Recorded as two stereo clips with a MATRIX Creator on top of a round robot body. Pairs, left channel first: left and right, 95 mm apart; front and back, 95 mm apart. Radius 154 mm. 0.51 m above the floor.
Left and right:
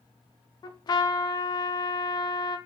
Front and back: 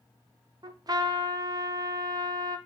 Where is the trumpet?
135° left, 0.5 m.